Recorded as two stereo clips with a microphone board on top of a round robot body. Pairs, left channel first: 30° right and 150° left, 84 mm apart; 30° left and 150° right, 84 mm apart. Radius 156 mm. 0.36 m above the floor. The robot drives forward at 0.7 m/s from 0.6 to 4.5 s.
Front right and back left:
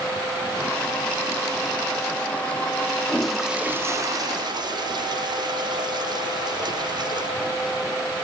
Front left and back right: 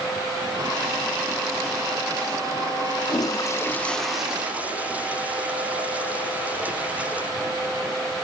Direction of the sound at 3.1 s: 45° left.